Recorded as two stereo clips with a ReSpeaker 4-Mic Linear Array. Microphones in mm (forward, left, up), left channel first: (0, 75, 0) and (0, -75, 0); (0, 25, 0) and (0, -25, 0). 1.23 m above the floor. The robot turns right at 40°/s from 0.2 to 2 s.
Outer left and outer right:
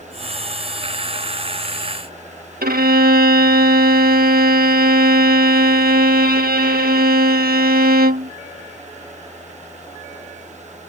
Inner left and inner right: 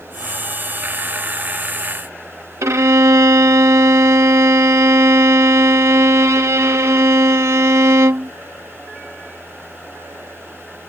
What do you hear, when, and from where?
2.6 s a violin: 80° right